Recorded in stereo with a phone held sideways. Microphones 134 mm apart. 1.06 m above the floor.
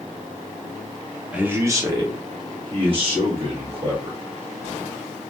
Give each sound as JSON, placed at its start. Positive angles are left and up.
{"t": 1.3, "sound": "a man speaking", "side_deg": -10, "distance_m": 0.7}